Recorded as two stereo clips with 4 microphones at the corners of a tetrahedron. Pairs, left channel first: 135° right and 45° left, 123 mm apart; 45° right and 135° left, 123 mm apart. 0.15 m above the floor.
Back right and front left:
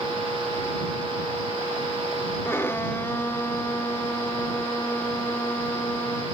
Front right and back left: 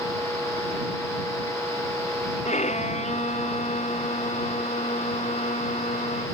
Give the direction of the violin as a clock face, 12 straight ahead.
2 o'clock.